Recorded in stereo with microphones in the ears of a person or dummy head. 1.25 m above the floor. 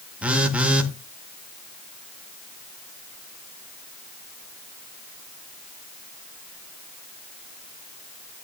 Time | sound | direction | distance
0.2 | a phone buzzing | 10° right (ahead or behind) | 1.4 m